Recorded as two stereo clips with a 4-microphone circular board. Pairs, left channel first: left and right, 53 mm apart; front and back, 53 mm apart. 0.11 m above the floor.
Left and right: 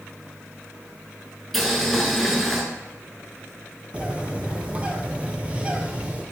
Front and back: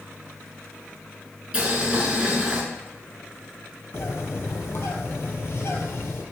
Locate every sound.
1.5 s boiling: straight behind, 1.0 m
3.9 s a bird: 25° right, 0.7 m